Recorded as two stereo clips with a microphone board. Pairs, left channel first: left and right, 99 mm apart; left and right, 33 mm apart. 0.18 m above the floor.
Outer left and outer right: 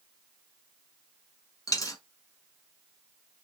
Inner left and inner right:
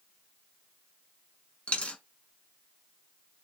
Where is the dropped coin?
35° left (ahead or behind), 1.0 m.